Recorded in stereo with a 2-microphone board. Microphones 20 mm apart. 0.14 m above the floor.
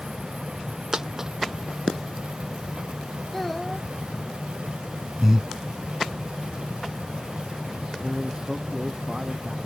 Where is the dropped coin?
25° right (ahead or behind).